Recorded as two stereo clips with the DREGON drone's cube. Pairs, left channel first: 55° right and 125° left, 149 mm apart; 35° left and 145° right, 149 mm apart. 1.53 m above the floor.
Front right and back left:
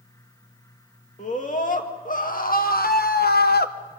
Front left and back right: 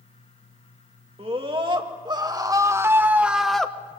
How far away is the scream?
About 2.5 m.